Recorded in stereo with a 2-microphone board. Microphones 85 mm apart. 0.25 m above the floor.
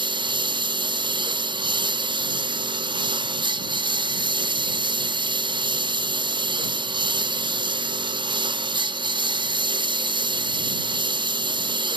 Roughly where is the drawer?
I don't hear a drawer.